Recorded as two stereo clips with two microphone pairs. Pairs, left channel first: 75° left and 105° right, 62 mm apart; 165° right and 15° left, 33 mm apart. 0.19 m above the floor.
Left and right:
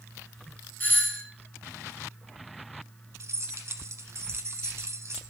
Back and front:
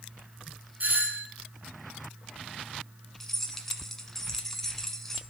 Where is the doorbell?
25° left, 2.5 m.